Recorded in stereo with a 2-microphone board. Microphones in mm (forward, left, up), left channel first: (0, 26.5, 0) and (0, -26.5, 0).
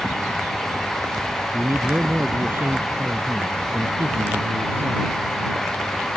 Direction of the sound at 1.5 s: 45° right (ahead or behind).